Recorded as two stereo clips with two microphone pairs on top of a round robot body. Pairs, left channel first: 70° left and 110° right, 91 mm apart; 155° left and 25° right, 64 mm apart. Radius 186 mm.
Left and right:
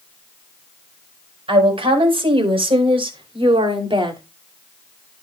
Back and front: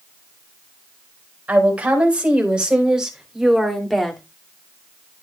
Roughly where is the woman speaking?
Right.